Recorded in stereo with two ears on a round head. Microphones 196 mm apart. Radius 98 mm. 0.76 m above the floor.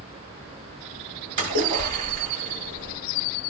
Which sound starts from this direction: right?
A splash, at 1.4 s.